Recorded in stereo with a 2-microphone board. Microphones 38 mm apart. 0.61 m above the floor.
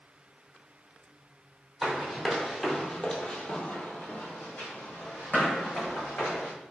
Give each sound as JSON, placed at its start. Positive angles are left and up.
{"t": 1.8, "sound": "running footsteps", "side_deg": -10, "distance_m": 0.9}